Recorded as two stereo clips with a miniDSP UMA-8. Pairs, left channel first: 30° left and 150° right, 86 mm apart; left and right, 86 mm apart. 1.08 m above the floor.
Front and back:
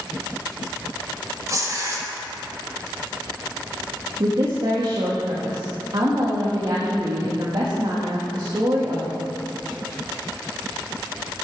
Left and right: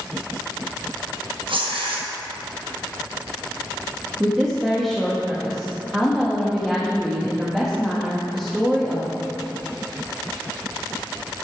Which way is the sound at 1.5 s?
95° right.